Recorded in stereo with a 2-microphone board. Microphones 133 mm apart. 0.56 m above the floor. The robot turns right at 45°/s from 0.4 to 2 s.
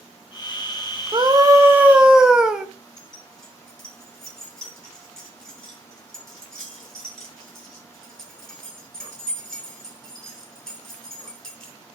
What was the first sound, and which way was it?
A scream, 45° right.